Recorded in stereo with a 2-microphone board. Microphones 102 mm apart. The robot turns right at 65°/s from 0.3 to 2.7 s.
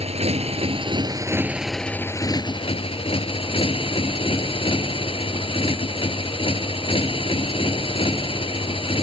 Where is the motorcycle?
90° right; by 9.0 s 65° left.